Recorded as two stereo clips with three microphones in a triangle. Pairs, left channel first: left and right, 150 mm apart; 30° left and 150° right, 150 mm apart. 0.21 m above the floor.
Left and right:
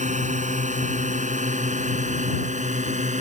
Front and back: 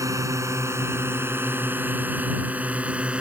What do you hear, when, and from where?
0.0 s a drone: 85° right; by 3.2 s 70° right